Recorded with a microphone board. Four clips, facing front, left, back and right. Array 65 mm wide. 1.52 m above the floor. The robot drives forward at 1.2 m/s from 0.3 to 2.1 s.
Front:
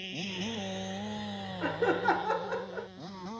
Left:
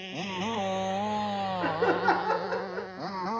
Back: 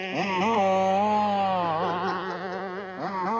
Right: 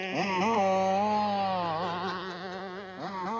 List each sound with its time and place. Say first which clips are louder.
0.0 s a motorcycle: right 6 dB, back 13 dB; 150° right; by 3.4 s 170° left
1.6 s laughter: left 6 dB, back 3 dB; 65° left; by 2.9 s 70° left